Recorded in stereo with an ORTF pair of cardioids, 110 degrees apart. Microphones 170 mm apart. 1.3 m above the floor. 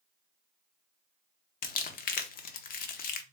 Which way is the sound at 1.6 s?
60° left.